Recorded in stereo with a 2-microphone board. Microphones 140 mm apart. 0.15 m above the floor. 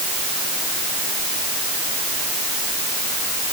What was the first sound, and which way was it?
Only background noise.